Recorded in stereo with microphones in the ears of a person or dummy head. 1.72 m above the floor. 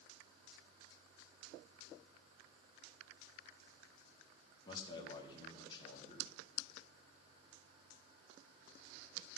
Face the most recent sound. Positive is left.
turn(degrees=20)  # may be behind; listen again after turning